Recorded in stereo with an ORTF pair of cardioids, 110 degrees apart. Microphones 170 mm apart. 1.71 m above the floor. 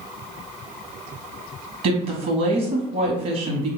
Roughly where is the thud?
I don't hear a thud.